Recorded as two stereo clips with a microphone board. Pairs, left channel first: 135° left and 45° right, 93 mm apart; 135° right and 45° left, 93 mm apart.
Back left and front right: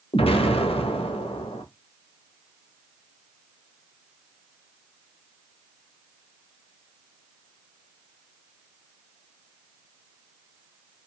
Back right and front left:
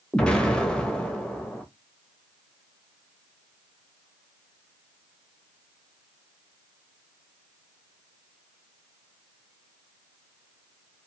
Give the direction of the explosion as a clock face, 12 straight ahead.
7 o'clock.